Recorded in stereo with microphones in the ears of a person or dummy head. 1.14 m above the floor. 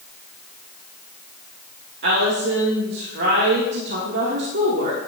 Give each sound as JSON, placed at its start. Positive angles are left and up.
{"t": 2.0, "sound": "a woman speaking", "side_deg": -60, "distance_m": 1.7}